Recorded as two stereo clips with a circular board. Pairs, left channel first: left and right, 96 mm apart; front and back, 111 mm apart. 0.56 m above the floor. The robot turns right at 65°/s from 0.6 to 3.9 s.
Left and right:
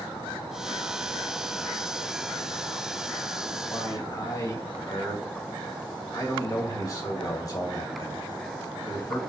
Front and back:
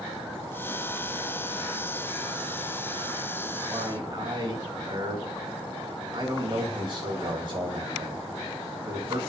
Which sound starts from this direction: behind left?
A man speaking, at 3.7 s.